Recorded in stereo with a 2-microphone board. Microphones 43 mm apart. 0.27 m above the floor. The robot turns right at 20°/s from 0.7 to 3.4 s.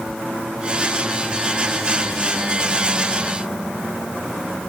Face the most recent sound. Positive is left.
No sound to turn to.